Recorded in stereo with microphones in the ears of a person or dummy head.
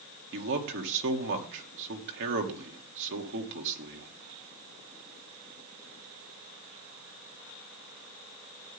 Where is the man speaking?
60° right (ahead or behind), 2 m.